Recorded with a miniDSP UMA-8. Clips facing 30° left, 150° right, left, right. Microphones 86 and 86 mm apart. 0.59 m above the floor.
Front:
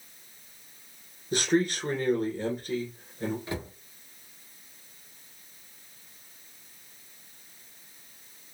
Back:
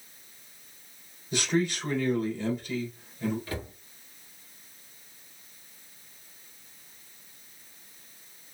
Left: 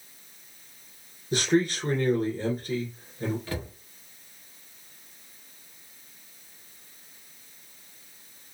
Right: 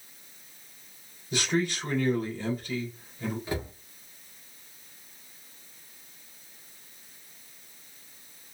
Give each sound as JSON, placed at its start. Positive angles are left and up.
{"t": 1.3, "sound": "a man speaking", "azimuth_deg": 50, "distance_m": 2.0}
{"t": 3.5, "sound": "a cupboard door", "azimuth_deg": -25, "distance_m": 1.4}